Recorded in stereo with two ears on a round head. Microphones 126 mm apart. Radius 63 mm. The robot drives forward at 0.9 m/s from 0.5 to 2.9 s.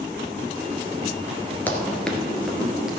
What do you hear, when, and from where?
1.7 s running footsteps: 15° left (ahead or behind), 1.9 m; by 2.9 s 5° right (ahead or behind), 2.5 m